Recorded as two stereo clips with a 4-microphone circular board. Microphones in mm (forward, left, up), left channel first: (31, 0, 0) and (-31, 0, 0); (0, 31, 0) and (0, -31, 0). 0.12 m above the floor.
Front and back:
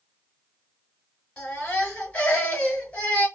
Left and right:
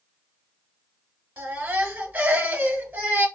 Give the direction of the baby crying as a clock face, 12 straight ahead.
2 o'clock.